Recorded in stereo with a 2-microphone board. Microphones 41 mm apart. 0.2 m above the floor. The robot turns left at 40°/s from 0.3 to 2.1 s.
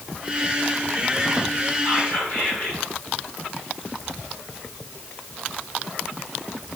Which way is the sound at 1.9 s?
25° left (ahead or behind).